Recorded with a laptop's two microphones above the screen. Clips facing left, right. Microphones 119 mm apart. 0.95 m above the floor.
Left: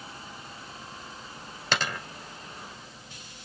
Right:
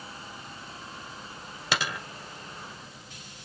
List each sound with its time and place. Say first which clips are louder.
1.7 s a dropped coin: left 1 dB; 5° right (ahead or behind), 2.5 m